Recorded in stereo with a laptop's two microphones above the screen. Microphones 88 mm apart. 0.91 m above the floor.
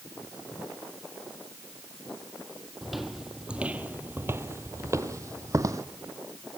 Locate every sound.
2.8 s footsteps: centre (ahead or behind), 1.2 m; by 5.8 s 40° right (ahead or behind), 1.5 m